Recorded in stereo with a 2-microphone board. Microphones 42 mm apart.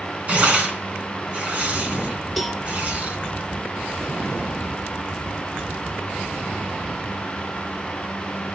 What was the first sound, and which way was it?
Tearing paper, 35° right (ahead or behind).